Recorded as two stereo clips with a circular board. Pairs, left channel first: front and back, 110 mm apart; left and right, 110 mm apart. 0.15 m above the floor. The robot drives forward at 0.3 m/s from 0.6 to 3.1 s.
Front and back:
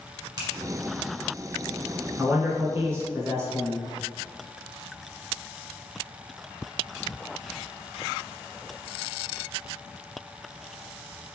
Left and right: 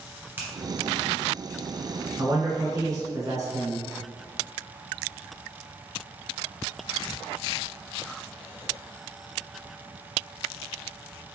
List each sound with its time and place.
0.4 s a finger snap: 150° right, 1.7 m
2.2 s a man speaking: 115° right, 1.5 m; by 3.8 s 130° right, 1.6 m